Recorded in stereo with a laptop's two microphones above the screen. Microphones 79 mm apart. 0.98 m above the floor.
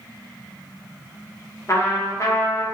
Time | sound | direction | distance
1.7 | a trumpet | 35° left (ahead or behind) | 0.5 m